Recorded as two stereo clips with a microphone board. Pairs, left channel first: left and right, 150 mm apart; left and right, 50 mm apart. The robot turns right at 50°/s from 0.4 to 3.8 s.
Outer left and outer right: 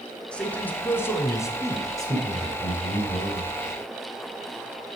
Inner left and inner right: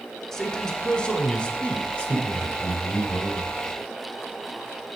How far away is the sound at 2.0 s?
About 1.8 m.